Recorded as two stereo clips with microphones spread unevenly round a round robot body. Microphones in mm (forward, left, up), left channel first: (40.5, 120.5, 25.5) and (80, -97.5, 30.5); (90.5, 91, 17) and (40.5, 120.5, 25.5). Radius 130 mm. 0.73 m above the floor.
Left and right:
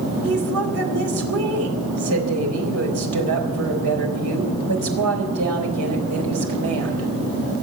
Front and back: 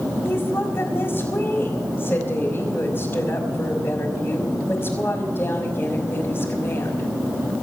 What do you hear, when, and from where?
0.2 s a woman speaking: 100° right, 4 m